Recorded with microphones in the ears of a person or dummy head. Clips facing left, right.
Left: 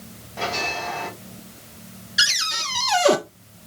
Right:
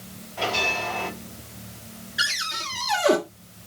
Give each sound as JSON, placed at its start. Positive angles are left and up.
{"t": 0.4, "sound": "a bell", "side_deg": 75, "distance_m": 5.5}
{"t": 2.2, "sound": "a cupboard door", "side_deg": 55, "distance_m": 1.2}